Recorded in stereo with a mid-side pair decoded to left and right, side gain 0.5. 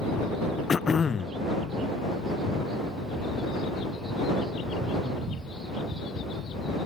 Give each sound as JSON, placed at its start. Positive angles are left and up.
{"t": 0.7, "sound": "throat clearing", "azimuth_deg": 35}